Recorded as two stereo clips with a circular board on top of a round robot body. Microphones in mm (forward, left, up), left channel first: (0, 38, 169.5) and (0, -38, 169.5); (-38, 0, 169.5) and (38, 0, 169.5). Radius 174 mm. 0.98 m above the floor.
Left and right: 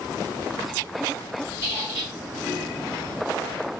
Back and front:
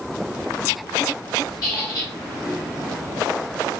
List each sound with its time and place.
1.6 s a squeak: 135° right, 1.5 m